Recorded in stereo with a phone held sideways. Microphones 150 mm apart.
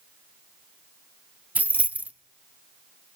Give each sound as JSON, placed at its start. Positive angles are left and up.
{"t": 1.6, "sound": "keys jangling", "side_deg": -10, "distance_m": 0.6}